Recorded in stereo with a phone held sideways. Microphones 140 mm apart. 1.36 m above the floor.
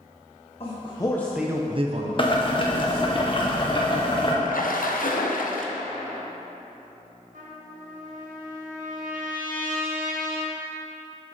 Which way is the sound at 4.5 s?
80° left.